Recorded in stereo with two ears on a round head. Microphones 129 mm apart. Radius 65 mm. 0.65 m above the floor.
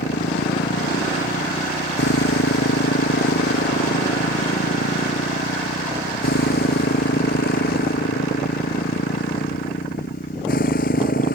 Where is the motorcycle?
80° left; by 11.4 s 60° left (ahead or behind).